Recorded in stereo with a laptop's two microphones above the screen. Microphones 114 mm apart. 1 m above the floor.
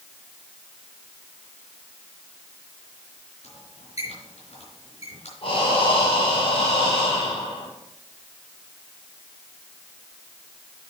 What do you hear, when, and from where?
3.4 s a squeak: 75° left (ahead or behind), 4 m
5.4 s breathing: 55° left (ahead or behind), 4 m